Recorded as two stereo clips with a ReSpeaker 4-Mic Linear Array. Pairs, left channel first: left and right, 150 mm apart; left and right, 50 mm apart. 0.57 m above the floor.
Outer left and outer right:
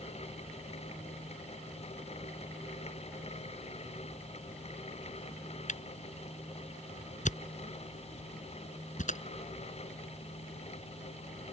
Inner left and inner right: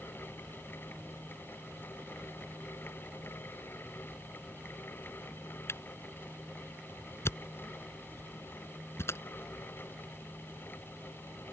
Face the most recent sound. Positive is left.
turn(degrees=55)  # may be behind; listen again after turning